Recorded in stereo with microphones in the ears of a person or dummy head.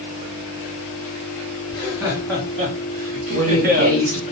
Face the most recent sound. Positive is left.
turn(degrees=-85)